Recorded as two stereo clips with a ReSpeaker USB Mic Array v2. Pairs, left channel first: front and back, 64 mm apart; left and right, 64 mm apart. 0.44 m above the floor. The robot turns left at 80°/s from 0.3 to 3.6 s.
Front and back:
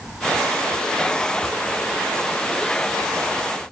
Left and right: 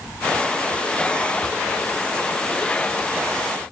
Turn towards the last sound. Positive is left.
No sound to turn to.